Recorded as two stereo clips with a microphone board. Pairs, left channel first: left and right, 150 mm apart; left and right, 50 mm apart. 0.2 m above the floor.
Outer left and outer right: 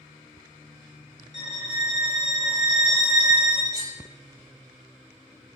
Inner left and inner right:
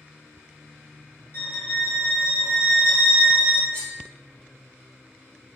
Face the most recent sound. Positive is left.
turn(degrees=30)  # may be behind; listen again after turning